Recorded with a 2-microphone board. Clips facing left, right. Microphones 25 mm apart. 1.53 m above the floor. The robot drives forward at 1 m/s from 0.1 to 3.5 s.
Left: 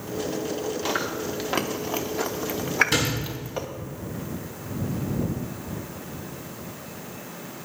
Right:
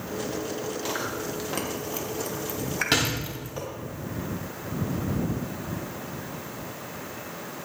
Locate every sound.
0.8 s chewing: 20° left (ahead or behind), 1.7 m
2.9 s a door slam: 65° right (ahead or behind), 6 m